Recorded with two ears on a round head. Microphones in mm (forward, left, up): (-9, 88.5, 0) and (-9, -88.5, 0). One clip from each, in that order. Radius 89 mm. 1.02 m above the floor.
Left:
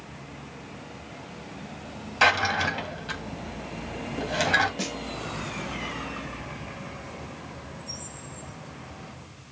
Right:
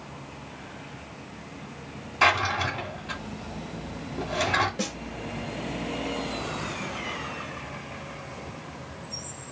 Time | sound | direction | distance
2.2 | a drawer | 40° left (ahead or behind) | 2 m
4.8 | a snare drum | 25° left (ahead or behind) | 3 m